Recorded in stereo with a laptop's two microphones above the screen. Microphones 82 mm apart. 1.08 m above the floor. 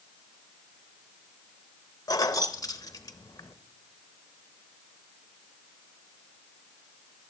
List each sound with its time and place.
2.1 s keys jangling: 45° left (ahead or behind), 0.8 m